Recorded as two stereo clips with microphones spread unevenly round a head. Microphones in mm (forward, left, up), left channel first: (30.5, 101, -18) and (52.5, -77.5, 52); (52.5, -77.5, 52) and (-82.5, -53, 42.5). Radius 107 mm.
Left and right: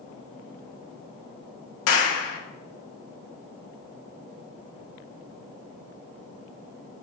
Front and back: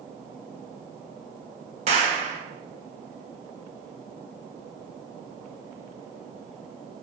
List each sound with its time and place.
1.9 s a clap: 110° left, 1.1 m